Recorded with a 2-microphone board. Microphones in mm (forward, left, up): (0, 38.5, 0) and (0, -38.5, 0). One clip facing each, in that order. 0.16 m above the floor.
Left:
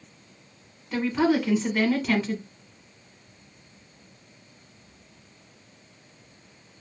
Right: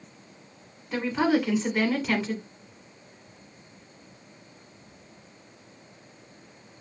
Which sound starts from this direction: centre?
A woman speaking, at 0.9 s.